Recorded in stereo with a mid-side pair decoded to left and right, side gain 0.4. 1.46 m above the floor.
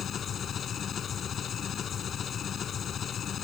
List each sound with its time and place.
0.0 s an engine running: 60° left